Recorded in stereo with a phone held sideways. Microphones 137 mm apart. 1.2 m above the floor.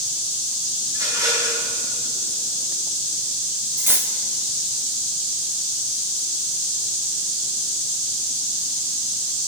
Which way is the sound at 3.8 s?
15° right (ahead or behind).